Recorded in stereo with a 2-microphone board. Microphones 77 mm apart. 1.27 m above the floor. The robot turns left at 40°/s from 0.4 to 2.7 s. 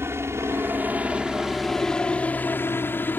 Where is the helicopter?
30° right (ahead or behind); by 3.2 s 25° left (ahead or behind).